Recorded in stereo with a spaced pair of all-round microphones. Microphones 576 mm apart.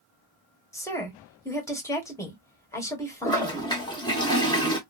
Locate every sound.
0.7 s a woman speaking: 5° left (ahead or behind), 1.3 m
3.2 s a toilet flushing: 5° left (ahead or behind), 1.1 m